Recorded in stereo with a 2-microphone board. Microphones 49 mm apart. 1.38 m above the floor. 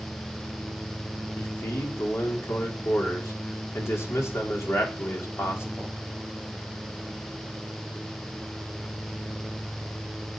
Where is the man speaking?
70° left (ahead or behind), 4 m.